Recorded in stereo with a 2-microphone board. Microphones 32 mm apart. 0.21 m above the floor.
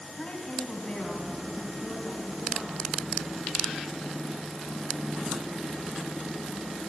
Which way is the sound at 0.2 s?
25° left (ahead or behind).